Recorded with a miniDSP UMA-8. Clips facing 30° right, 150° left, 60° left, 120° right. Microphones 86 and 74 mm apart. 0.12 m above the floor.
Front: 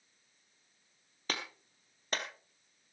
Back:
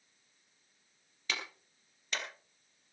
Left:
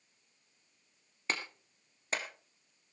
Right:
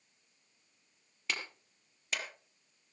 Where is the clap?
10° left, 2.5 m.